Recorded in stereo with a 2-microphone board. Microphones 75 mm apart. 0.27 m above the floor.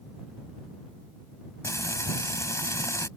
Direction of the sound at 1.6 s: 45° left (ahead or behind).